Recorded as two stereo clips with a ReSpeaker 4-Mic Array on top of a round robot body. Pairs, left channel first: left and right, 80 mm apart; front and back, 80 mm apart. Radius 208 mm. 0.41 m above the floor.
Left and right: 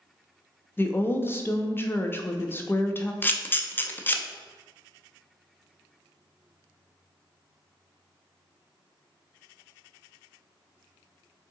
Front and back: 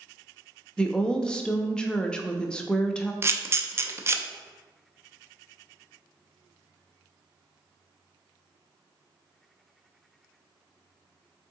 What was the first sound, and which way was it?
A woman speaking, 70° left.